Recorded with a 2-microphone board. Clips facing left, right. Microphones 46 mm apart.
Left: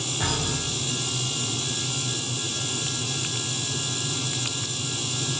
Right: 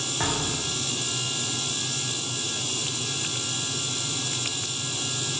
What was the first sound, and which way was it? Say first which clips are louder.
A thud: even; 30° right (ahead or behind).